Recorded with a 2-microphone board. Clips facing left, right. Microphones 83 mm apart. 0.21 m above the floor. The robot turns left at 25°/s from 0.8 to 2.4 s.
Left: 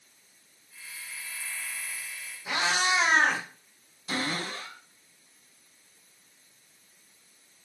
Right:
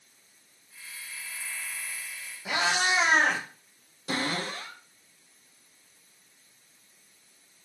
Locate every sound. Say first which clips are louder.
2.5 s a cat meowing: even; 75° right (ahead or behind), 2 m
4.1 s a cupboard door: right 1 dB; 70° right (ahead or behind), 3 m